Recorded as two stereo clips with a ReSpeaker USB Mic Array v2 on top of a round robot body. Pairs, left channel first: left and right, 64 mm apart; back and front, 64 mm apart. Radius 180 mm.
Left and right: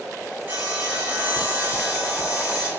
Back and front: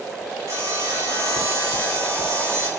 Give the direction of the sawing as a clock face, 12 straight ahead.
1 o'clock.